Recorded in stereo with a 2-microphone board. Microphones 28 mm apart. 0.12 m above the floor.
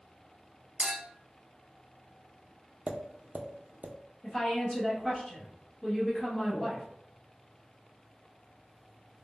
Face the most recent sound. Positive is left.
turn(degrees=30)  # may be behind; listen again after turning